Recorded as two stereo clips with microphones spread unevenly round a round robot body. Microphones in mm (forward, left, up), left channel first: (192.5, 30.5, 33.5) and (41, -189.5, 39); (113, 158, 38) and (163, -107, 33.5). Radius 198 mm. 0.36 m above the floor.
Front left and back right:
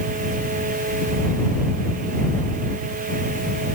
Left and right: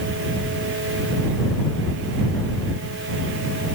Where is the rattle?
No rattle in this recording.